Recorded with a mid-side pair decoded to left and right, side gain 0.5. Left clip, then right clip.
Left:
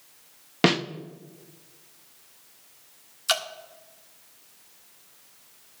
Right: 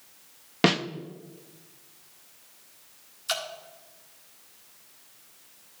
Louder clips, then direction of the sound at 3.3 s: Left 5 dB; 45° left.